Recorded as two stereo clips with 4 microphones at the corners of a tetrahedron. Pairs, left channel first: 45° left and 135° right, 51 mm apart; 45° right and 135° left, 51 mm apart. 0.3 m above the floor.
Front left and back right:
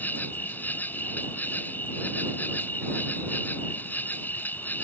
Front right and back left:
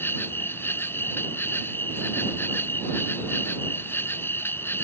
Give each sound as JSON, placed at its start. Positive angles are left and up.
{"t": 0.0, "sound": "an insect", "azimuth_deg": -5}